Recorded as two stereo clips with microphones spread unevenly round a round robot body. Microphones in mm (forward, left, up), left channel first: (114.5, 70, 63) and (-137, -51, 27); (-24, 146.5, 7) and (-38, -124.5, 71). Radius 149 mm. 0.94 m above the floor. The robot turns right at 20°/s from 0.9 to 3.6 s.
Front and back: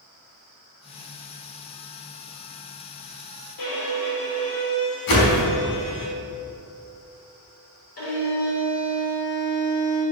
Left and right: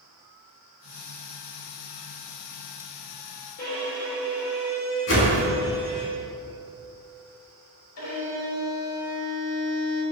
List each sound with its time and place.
3.6 s a violin: 35° left, 3 m
5.1 s a whoosh: 35° left, 4 m
8.0 s a violin: 70° left, 4.5 m